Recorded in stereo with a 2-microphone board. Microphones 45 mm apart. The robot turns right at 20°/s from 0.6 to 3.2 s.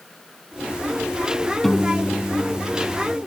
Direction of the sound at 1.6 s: Centre (ahead or behind).